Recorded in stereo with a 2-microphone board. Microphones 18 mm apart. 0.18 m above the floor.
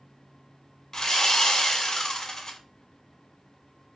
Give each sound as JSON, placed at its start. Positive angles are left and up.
{"t": 0.9, "sound": "sawing", "side_deg": 25, "distance_m": 0.6}